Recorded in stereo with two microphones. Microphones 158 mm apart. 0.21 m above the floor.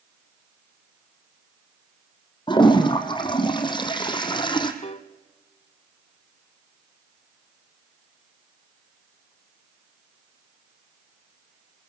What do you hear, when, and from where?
2.5 s a toilet flushing: 30° left (ahead or behind), 2 m
4.8 s a piano: 45° left (ahead or behind), 0.8 m